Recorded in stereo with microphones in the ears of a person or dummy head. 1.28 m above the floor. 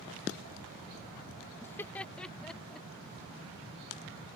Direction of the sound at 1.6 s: 15° left (ahead or behind).